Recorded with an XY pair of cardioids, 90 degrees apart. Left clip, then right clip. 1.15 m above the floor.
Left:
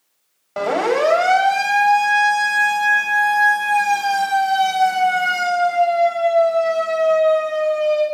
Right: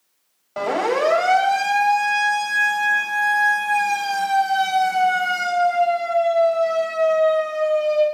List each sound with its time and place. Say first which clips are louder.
0.6 s a siren: left 2 dB; 25° left, 6.5 m; by 8.1 s 30° left, 11.5 m